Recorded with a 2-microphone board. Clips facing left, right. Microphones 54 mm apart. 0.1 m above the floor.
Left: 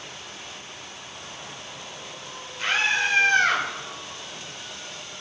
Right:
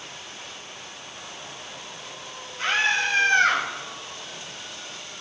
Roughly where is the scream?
Right.